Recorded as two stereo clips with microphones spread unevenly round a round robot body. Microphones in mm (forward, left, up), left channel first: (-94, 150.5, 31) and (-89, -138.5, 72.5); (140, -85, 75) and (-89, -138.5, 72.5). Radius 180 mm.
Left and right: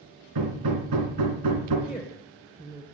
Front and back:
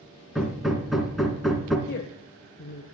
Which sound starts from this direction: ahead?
A woman speaking, at 1.9 s.